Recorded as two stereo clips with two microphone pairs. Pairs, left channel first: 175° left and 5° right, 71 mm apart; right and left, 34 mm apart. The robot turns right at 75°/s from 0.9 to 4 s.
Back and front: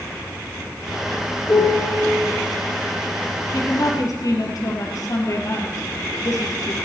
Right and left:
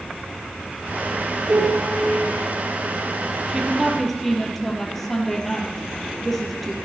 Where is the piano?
130° left, 4.5 m; by 2.1 s 175° left, 4.5 m.